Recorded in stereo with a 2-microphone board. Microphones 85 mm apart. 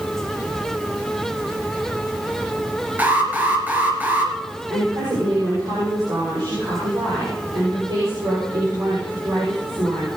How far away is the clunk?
No clunk in this recording.